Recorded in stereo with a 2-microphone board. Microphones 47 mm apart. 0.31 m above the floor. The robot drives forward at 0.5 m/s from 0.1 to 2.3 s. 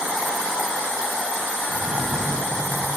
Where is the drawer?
45° right (ahead or behind), 7 m.